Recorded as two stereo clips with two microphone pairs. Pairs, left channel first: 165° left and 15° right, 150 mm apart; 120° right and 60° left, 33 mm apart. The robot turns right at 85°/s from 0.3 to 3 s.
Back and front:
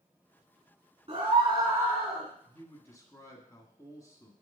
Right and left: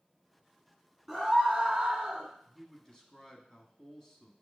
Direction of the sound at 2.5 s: 150° left.